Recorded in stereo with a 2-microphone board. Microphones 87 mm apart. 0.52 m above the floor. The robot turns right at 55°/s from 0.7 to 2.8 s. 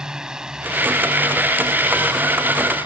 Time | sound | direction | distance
0.0 | a drone | 10° right (ahead or behind) | ?